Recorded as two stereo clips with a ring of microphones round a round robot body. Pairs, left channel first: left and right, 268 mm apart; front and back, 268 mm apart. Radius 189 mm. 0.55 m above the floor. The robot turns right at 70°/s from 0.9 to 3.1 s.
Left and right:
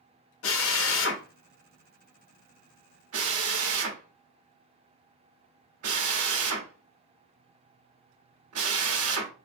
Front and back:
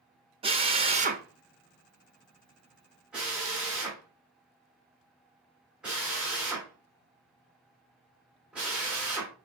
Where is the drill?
110° left, 0.9 m; by 9.3 s 95° right, 0.9 m.